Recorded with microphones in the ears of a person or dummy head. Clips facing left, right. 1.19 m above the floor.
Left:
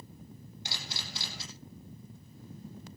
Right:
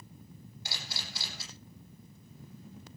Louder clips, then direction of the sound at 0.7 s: Left 1 dB; 20° left (ahead or behind).